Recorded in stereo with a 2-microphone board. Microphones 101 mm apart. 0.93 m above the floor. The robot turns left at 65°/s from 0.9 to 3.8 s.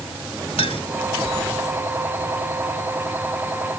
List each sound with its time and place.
0.6 s a clink: 85° left